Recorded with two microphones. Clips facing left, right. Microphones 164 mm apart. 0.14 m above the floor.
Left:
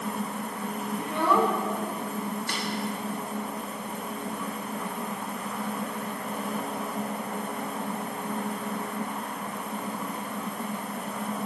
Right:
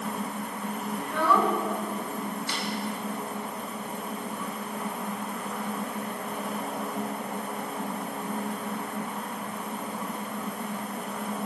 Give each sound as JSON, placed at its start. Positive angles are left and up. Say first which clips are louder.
{"t": 1.0, "sound": "a child speaking", "louder": "left 1 dB", "side_deg": 20, "distance_m": 0.7}
{"t": 2.5, "sound": "a snare drum", "louder": "even", "side_deg": 55, "distance_m": 1.5}